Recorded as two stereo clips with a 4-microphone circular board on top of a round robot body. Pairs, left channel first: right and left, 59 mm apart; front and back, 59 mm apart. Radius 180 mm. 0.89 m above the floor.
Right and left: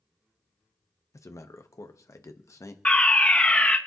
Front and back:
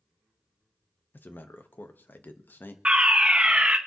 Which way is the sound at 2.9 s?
130° right.